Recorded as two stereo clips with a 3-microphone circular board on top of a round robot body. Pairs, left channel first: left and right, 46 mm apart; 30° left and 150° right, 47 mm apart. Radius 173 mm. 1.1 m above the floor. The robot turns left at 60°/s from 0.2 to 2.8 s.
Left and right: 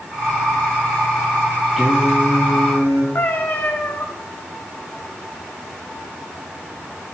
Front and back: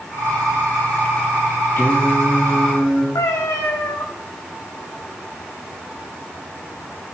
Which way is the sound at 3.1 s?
35° left.